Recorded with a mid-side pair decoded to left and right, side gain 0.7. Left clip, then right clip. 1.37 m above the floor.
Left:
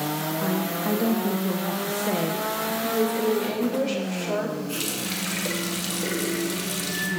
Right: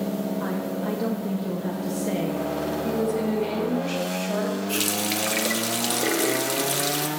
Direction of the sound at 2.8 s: 25° left.